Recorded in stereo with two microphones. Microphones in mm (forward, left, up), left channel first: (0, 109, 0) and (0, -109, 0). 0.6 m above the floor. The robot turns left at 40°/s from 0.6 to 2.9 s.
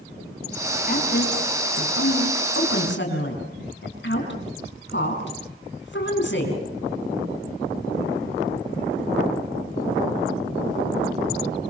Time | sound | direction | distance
0.9 | a woman speaking | 40° left (ahead or behind) | 5 m